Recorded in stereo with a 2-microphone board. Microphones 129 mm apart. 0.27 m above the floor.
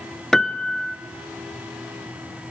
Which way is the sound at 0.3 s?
5° left (ahead or behind).